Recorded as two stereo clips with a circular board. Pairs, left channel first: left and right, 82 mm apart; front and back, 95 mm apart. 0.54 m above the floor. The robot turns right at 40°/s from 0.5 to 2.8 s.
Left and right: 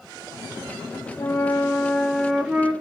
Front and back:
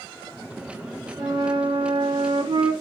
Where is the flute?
140° left, 0.7 m; by 2.7 s 155° right, 0.7 m.